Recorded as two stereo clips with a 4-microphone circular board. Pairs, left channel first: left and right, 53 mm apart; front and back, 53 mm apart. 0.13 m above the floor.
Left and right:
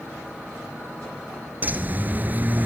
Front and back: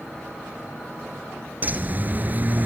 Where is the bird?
135° right, 1.1 m.